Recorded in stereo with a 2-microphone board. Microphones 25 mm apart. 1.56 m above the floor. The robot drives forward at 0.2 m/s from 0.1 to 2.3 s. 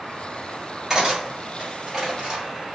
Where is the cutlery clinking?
25° right (ahead or behind), 1.6 m; by 2.4 s 20° right (ahead or behind), 1.8 m.